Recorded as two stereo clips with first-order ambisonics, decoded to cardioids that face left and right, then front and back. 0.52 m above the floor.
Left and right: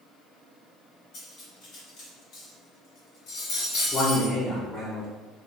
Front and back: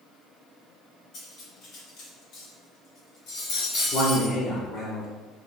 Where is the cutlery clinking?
50° left, 1.7 m.